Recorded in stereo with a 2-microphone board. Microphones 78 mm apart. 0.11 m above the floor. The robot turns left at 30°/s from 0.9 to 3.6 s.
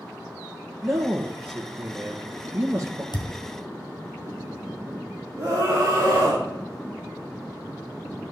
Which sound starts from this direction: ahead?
A man speaking, at 0.8 s.